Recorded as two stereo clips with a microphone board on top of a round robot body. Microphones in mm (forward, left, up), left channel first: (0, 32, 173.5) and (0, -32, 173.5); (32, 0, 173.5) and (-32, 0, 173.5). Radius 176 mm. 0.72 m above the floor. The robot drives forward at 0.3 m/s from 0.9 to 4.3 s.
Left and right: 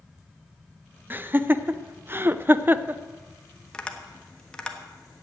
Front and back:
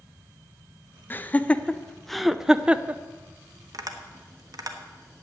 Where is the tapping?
170° left, 1.3 m.